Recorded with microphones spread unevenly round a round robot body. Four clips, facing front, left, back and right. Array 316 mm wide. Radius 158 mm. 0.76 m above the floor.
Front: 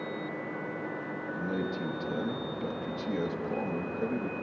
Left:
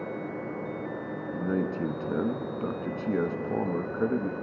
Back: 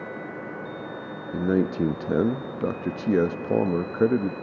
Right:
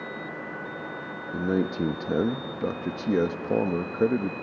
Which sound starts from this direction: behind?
A man speaking, at 1.3 s.